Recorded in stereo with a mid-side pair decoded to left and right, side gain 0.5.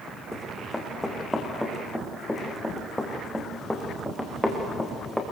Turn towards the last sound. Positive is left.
turn(degrees=5)